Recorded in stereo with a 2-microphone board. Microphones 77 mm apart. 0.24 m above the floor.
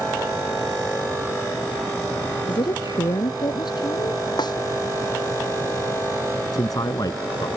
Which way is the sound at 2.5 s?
75° left (ahead or behind).